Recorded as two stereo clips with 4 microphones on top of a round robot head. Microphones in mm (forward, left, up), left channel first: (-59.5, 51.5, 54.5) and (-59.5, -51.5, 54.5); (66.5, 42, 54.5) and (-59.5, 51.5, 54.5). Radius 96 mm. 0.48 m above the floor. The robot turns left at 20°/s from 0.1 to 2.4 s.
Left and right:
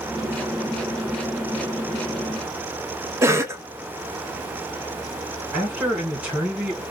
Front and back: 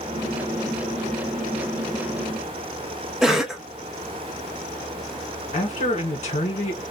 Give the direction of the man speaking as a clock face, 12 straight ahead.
1 o'clock.